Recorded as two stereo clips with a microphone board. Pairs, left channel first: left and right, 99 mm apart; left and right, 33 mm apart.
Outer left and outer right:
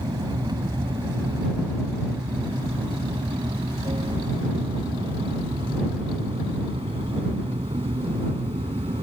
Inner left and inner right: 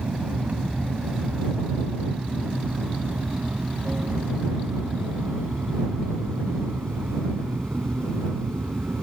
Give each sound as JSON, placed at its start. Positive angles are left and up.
{"t": 0.0, "sound": "an aircraft", "side_deg": -45}